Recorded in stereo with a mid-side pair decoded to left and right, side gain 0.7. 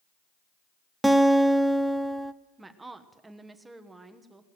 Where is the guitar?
5° right, 0.7 m.